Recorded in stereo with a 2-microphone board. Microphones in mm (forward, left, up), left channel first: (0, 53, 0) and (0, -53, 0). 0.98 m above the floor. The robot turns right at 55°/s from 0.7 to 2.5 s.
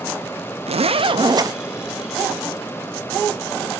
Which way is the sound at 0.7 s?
80° right.